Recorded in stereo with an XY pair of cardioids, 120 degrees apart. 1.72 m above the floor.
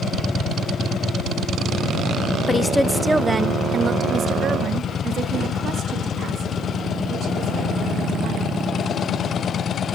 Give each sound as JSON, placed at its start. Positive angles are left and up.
{"t": 2.5, "sound": "a woman speaking", "azimuth_deg": 25, "distance_m": 1.1}